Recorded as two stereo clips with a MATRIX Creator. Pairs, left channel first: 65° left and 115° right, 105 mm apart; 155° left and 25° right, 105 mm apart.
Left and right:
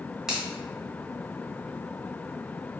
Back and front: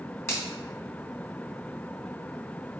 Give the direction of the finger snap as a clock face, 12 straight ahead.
6 o'clock.